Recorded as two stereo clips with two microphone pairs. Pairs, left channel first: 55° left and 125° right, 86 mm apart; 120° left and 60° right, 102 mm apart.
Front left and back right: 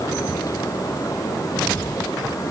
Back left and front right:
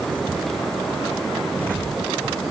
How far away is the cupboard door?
No cupboard door in this recording.